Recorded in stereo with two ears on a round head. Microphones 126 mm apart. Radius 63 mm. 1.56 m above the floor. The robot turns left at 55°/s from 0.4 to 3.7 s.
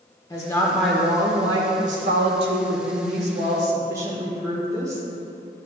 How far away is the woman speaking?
About 1.4 m.